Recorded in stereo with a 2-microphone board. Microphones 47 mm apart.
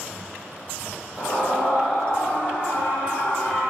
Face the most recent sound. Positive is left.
turn(degrees=5)  # may be behind; listen again after turning